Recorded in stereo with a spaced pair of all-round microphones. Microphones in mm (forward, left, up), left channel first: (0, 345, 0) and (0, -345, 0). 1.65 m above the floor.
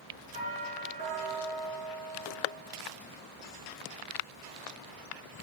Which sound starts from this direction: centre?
A doorbell, at 0.3 s.